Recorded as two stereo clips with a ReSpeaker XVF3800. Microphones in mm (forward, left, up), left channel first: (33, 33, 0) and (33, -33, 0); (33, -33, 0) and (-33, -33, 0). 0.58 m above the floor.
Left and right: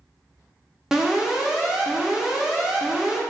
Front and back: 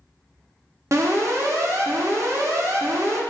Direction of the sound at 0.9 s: 165° right.